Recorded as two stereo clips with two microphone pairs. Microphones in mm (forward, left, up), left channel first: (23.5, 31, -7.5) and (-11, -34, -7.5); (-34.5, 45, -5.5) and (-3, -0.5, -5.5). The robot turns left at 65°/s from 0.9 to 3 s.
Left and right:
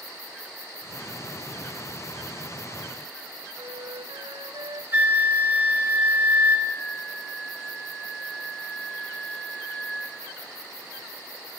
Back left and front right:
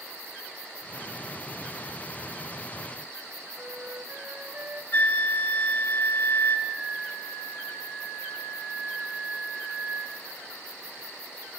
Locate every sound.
3.6 s a flute: 115° right, 1.6 m
4.9 s a flute: 175° left, 1.5 m
6.7 s a flute: 30° right, 7.5 m